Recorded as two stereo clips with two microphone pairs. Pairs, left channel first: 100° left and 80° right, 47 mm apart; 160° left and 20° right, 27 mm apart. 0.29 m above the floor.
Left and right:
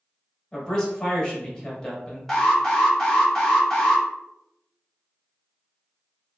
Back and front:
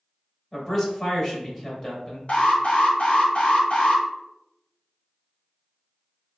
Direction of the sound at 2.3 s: Straight behind.